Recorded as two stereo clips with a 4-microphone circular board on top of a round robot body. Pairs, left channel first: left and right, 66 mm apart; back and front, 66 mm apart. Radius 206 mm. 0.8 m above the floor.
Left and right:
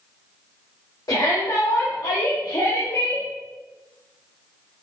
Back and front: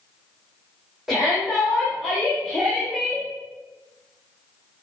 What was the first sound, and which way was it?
A shout, 85° left.